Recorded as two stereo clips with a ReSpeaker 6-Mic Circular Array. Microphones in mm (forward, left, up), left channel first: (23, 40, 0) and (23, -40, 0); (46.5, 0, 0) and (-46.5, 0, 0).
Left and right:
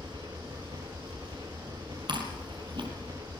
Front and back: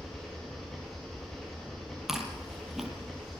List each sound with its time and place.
0.0 s an engine running: 85° right, 9.5 m
2.1 s chewing: 95° right, 5 m